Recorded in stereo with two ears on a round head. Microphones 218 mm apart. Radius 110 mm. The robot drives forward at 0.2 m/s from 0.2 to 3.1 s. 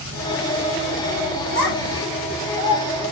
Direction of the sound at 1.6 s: 50° left (ahead or behind).